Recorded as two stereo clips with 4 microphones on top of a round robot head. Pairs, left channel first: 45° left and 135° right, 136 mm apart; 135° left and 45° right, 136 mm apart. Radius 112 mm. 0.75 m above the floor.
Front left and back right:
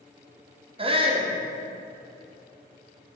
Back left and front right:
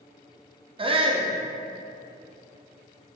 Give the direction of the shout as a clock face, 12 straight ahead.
3 o'clock.